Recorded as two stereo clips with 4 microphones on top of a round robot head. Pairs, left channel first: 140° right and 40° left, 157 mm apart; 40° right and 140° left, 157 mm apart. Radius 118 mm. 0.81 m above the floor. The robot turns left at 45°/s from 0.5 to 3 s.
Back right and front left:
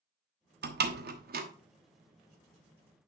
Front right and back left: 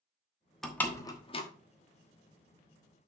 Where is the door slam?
50° left, 1.2 m; by 1.4 s 10° left, 1.2 m.